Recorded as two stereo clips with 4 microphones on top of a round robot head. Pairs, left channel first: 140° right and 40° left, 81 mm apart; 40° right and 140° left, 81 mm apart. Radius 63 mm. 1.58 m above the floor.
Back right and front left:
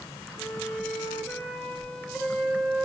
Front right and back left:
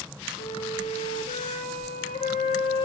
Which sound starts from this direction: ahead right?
A flute, at 0.4 s.